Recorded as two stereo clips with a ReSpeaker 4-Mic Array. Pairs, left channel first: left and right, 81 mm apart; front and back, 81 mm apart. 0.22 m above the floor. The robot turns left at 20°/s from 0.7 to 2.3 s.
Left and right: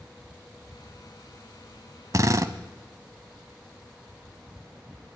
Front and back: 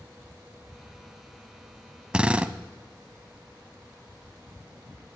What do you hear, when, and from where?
2.1 s a drill: 105° right, 0.6 m; by 2.5 s 110° right, 0.6 m